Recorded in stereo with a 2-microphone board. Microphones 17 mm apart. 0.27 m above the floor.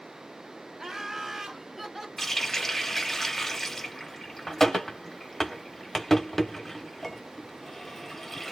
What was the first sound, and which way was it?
Laughter, 30° right (ahead or behind).